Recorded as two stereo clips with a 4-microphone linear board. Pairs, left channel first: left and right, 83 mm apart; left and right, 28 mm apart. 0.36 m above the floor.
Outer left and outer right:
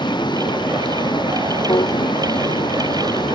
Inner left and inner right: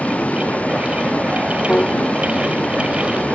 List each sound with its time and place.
0.0 s a vehicle: 65° left (ahead or behind)
1.7 s a piano: 65° left (ahead or behind)